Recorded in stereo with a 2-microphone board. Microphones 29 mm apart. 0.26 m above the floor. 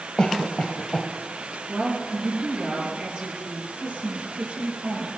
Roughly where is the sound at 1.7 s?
Right.